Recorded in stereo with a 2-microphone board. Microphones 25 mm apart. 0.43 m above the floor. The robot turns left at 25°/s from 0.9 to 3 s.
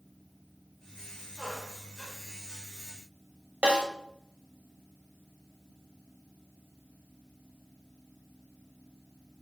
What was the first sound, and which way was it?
A squeak, 30° right (ahead or behind).